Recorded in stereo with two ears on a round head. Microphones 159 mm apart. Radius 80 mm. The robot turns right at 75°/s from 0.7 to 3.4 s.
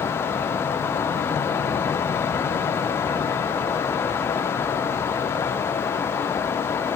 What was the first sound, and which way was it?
Only background noise.